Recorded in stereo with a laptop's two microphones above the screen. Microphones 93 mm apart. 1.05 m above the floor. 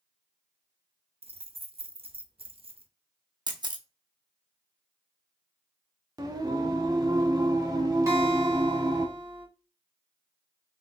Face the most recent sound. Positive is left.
turn(degrees=-30)  # may be behind; listen again after turning